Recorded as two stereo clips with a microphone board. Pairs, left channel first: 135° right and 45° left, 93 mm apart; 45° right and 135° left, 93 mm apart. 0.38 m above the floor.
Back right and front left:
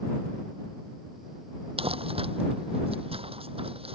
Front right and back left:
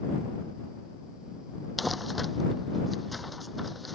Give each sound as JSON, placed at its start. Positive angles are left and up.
{"t": 1.8, "sound": "crumpling", "azimuth_deg": 45}